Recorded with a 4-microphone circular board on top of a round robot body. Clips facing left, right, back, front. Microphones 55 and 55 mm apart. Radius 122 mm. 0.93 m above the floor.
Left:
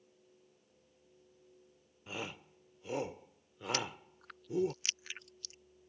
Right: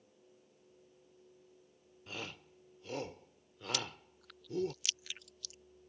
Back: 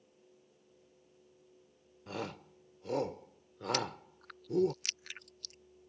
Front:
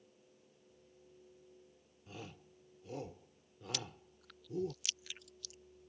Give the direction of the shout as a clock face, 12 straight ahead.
6 o'clock.